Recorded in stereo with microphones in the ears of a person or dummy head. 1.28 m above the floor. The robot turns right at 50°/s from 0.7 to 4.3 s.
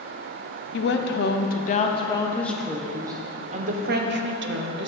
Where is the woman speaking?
85° left, 0.7 m; by 4.9 s 95° right, 0.7 m.